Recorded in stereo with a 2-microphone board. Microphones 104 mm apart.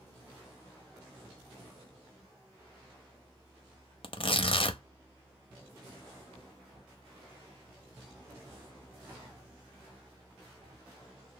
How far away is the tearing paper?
About 0.6 m.